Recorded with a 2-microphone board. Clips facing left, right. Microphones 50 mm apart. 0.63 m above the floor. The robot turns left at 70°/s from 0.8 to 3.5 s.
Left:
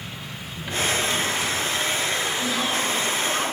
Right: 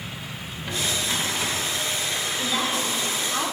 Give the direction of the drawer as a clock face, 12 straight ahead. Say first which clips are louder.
Left 4 dB; 12 o'clock.